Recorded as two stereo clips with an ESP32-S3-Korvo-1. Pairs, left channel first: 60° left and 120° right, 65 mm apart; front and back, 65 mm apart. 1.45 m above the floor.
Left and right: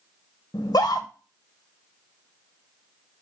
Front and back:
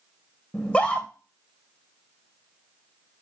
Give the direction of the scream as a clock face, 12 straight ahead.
9 o'clock.